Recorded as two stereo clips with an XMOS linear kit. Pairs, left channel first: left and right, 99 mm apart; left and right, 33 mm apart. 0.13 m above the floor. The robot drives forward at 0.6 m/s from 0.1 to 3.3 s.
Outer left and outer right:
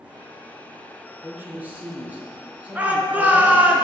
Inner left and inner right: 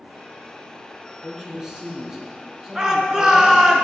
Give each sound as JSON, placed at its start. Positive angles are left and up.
{"t": 1.2, "sound": "a man speaking", "side_deg": -20, "distance_m": 2.5}
{"t": 2.8, "sound": "a shout", "side_deg": -15, "distance_m": 1.6}